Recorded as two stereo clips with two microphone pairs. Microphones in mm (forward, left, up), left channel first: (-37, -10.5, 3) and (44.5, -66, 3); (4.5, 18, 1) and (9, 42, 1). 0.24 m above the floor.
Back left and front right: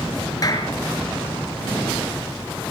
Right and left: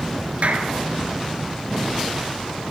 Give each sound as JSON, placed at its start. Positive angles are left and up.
{"t": 0.4, "sound": "a clap", "azimuth_deg": 95, "distance_m": 3.5}